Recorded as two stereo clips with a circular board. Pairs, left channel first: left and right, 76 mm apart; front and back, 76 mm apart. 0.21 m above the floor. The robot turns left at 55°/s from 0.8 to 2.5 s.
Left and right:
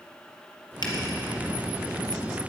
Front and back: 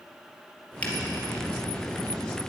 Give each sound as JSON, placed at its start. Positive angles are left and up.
{"t": 0.8, "sound": "a finger snap", "azimuth_deg": 70, "distance_m": 3.5}